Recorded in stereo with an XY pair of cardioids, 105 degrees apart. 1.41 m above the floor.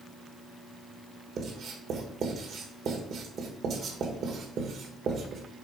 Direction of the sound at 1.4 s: 60° right.